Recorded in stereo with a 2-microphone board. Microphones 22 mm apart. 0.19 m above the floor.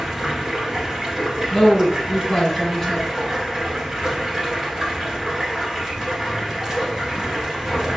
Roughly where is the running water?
Right.